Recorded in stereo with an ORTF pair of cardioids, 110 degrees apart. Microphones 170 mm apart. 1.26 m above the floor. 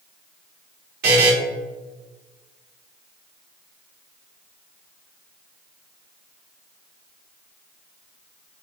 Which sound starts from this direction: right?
A buzzer, at 1.0 s.